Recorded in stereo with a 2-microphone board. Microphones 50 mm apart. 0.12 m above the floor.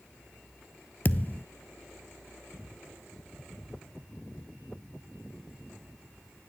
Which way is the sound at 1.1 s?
35° left (ahead or behind).